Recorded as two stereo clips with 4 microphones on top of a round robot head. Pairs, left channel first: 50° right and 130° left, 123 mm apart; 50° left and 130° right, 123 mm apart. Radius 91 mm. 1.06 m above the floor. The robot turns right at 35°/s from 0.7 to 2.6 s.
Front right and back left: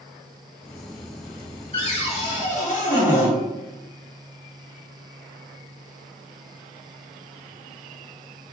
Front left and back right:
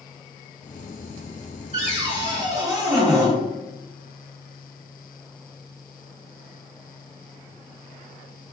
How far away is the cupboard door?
About 1.3 m.